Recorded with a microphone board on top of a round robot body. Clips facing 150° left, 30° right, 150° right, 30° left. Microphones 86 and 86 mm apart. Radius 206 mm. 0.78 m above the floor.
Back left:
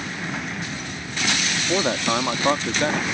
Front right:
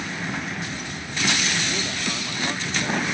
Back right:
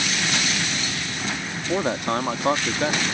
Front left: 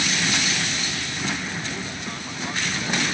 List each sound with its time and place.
1.7 s a man speaking: straight behind